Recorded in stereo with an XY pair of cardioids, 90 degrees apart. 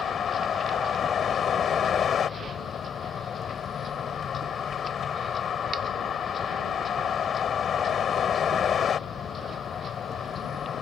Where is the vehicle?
60° left.